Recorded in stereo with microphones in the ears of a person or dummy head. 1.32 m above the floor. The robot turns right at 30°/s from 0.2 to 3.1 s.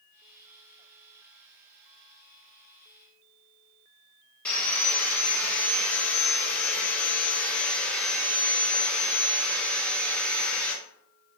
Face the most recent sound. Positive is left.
turn(degrees=5)  # may be behind; listen again after turning